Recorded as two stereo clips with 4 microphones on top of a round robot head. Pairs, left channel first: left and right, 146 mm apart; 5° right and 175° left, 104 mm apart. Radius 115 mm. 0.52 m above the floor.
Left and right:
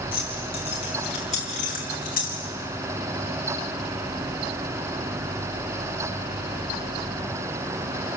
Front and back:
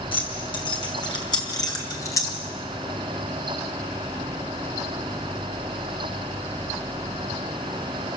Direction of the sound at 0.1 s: 30° left.